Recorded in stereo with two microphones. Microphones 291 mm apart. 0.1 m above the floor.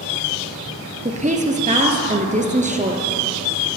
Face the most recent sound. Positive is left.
turn(degrees=-25)  # may be behind; listen again after turning